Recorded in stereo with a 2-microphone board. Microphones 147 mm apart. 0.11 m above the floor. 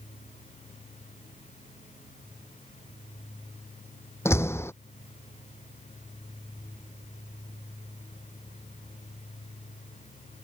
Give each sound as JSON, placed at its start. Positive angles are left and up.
{"t": 4.2, "sound": "a door slam", "side_deg": 15}